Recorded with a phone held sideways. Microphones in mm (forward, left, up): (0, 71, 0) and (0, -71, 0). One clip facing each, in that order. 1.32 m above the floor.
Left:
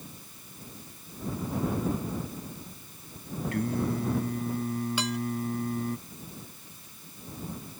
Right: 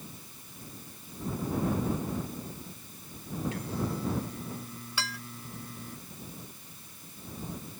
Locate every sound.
3.5 s singing: 55° left (ahead or behind)
5.0 s dishes clattering: 20° left (ahead or behind)